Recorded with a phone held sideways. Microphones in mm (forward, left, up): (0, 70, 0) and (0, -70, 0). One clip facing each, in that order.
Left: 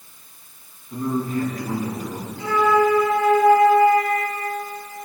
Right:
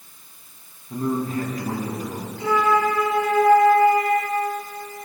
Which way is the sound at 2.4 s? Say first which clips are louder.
Left 2 dB; 55° right (ahead or behind).